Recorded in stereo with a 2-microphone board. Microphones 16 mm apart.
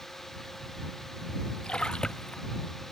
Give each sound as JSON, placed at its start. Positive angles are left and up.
{"t": 1.6, "sound": "a splash", "side_deg": 80}